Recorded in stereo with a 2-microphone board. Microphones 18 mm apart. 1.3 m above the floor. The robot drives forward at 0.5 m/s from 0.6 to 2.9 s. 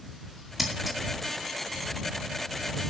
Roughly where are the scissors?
Centre.